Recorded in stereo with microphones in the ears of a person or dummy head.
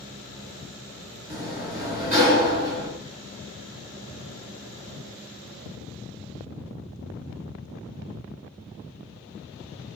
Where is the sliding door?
35° right (ahead or behind), 1.6 m.